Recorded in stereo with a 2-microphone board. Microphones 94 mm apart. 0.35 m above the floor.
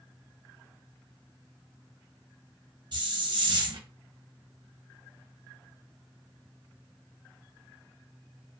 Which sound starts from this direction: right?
A hiss, at 2.9 s.